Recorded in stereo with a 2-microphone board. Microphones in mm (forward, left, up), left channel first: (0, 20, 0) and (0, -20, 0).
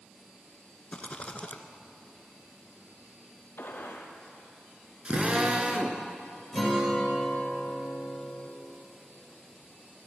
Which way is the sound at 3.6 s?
70° left (ahead or behind).